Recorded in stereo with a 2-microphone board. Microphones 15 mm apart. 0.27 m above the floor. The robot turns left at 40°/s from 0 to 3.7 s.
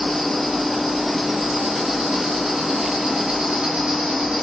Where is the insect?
55° left, 0.8 m; by 4.4 s 90° right, 0.8 m.